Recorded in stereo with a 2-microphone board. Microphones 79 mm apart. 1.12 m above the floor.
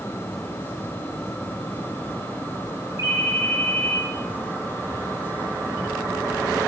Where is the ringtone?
45° right (ahead or behind), 2 m.